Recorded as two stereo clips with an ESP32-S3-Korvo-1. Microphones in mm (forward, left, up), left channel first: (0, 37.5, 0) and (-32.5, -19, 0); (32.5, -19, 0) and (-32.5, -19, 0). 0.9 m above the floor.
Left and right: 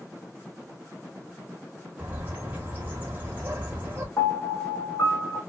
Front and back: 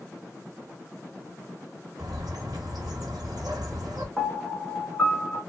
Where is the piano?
70° left, 1.3 m.